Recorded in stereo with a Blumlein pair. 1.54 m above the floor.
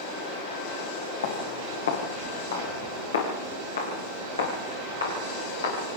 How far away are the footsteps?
About 6 m.